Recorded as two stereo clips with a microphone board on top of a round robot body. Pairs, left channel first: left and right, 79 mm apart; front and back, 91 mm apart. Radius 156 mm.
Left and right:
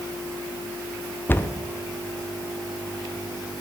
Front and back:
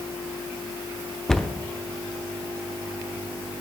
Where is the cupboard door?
80° left, 0.9 m.